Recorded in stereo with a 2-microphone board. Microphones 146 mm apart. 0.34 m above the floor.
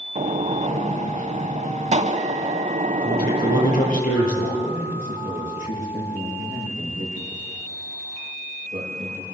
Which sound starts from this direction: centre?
A man speaking, at 4.7 s.